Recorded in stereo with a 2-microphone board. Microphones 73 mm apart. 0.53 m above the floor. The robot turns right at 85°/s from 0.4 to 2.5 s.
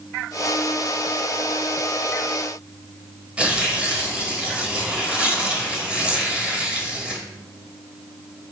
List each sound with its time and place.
3.4 s tearing paper: 15° right (ahead or behind), 0.9 m